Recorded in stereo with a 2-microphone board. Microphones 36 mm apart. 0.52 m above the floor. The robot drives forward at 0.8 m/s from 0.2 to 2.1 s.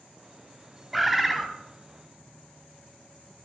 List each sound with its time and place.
0.9 s a bird: 5° right (ahead or behind), 0.7 m